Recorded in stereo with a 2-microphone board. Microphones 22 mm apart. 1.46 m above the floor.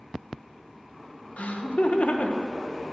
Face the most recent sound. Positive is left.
turn(degrees=80)